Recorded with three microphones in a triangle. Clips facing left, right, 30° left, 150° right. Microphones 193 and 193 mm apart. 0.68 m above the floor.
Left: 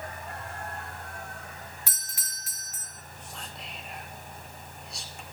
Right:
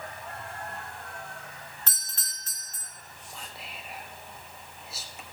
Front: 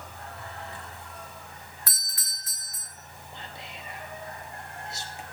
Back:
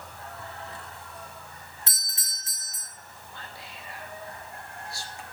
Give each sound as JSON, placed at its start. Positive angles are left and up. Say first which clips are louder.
{"t": 1.9, "sound": "a doorbell", "louder": "even, even", "azimuth_deg": 160, "distance_m": 1.5}
{"t": 3.3, "sound": "whispering", "louder": "even, front 2 dB", "azimuth_deg": -10, "distance_m": 0.7}